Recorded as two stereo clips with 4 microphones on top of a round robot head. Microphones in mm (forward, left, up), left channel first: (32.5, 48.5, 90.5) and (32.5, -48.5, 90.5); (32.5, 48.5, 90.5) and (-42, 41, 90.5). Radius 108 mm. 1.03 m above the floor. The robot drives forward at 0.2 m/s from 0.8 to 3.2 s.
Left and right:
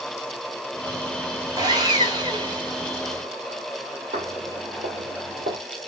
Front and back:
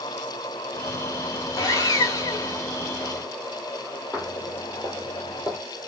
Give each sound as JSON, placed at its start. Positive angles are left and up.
{"t": 1.6, "sound": "sawing", "azimuth_deg": -45, "distance_m": 1.7}
{"t": 4.1, "sound": "footsteps", "azimuth_deg": -80, "distance_m": 2.5}